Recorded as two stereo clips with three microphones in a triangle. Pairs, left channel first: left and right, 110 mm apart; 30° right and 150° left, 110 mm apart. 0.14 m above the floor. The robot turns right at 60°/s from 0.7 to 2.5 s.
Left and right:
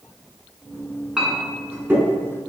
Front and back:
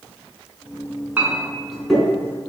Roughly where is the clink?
Behind.